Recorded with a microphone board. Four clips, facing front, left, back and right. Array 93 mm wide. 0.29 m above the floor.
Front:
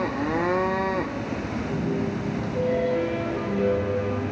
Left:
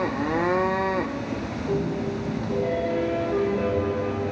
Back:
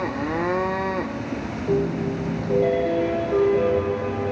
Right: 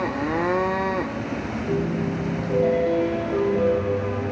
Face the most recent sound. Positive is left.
turn(degrees=-160)